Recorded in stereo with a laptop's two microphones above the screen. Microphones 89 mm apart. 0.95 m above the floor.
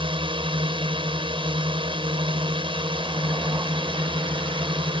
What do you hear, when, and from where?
0.0 s a drone: 70° right (ahead or behind)